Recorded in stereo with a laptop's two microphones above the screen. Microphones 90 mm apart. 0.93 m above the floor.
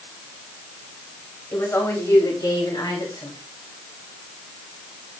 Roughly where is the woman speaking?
Left.